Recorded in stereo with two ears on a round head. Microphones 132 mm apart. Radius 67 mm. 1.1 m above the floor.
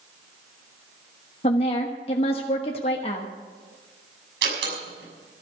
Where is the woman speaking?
40° left (ahead or behind), 1.1 m.